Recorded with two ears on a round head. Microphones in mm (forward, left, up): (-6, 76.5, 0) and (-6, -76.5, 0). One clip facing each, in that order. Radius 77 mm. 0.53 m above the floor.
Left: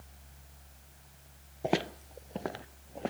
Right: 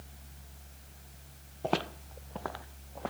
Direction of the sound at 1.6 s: 10° left (ahead or behind).